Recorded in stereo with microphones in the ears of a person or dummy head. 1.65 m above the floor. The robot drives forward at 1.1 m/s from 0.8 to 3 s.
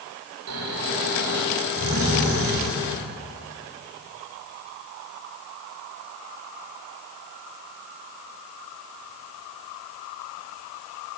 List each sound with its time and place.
0.5 s snoring: 85° right, 5.5 m; by 2.9 s 70° right (ahead or behind), 6 m